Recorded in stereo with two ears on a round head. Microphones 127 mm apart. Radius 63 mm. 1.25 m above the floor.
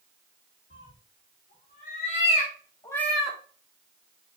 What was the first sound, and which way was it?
A cat meowing, 70° left (ahead or behind).